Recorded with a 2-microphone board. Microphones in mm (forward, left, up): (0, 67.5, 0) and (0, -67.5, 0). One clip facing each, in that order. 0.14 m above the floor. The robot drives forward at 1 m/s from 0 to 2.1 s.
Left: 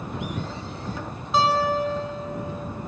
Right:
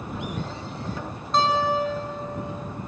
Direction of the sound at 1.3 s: 5° left (ahead or behind).